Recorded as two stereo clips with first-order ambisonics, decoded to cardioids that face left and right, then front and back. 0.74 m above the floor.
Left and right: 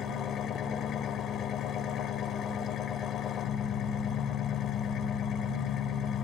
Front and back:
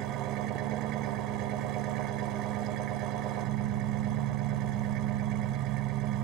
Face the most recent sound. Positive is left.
turn(degrees=145)